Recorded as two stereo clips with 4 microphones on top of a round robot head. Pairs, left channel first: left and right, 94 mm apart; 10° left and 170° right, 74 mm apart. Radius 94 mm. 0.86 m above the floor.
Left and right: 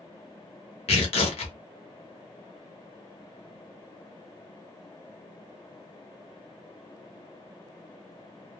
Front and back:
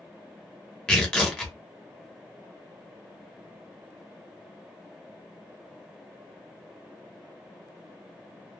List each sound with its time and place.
0.9 s tearing paper: 85° left, 0.9 m